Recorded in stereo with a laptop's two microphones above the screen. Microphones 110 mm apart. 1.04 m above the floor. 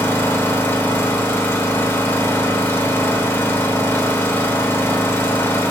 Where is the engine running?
20° left (ahead or behind), 0.9 m.